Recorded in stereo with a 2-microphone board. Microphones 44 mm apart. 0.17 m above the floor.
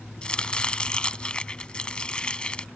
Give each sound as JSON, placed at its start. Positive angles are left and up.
{"t": 0.2, "sound": "chopping", "side_deg": 25}